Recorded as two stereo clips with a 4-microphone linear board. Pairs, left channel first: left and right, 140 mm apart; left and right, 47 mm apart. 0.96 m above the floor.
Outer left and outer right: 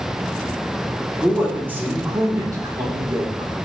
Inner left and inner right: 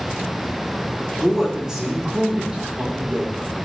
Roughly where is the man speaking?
Centre.